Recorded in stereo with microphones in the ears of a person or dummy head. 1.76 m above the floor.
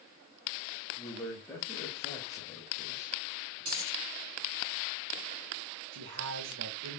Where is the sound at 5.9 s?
80° right, 0.9 m.